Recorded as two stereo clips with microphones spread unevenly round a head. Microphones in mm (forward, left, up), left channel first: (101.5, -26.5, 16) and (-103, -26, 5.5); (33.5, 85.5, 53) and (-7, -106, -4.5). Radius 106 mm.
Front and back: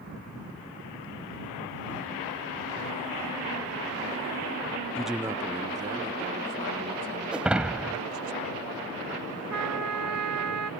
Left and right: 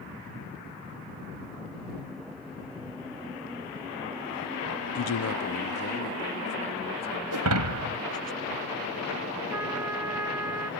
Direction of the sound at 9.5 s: 175° left.